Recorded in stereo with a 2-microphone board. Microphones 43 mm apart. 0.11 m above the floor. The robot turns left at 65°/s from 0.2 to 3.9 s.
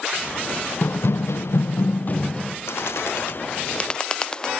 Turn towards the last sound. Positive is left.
turn(degrees=25)  # may be behind; listen again after turning